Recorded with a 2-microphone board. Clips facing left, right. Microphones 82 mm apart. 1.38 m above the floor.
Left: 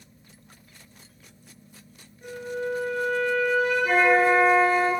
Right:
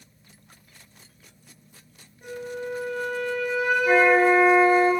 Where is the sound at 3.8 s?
5° left (ahead or behind), 1.2 m.